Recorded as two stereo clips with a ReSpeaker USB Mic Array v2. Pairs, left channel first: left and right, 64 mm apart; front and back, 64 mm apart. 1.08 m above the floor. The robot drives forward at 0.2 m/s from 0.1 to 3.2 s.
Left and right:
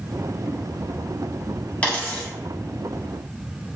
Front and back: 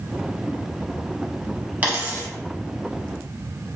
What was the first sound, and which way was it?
A dropped coin, 140° left.